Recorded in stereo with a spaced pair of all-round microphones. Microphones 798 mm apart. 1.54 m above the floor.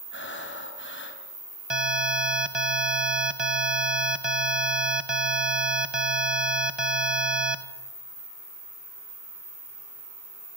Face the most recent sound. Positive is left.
turn(degrees=-35)  # may be behind; listen again after turning